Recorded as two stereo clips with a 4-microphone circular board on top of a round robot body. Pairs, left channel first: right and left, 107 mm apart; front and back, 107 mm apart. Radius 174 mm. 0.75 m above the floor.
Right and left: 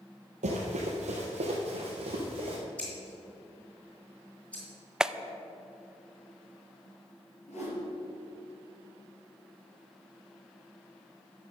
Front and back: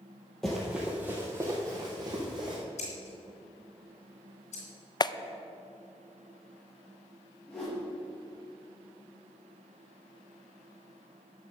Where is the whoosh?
80° right, 4.5 m.